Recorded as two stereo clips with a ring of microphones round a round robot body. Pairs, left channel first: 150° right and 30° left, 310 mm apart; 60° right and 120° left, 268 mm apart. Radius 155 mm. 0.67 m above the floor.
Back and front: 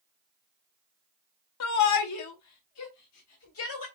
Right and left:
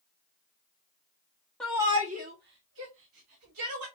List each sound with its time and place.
1.6 s a shout: 145° right, 0.7 m; by 3.9 s 165° left, 2.5 m